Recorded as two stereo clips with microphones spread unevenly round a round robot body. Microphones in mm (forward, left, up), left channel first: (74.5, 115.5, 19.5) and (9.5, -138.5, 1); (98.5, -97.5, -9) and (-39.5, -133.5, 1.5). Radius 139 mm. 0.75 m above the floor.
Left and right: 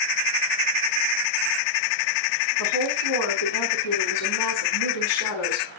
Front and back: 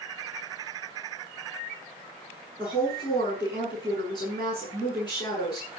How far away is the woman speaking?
About 7 m.